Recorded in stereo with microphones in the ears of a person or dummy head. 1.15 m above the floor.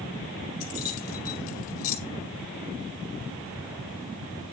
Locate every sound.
0.6 s keys jangling: 45° left (ahead or behind), 2.5 m